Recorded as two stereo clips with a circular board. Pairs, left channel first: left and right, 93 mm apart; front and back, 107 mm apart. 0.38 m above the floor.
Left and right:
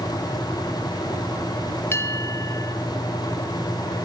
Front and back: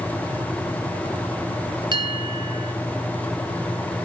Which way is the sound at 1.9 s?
150° left.